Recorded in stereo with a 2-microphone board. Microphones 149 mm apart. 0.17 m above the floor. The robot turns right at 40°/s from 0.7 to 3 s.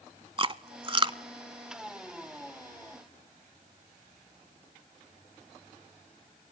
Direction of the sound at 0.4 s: 35° right (ahead or behind).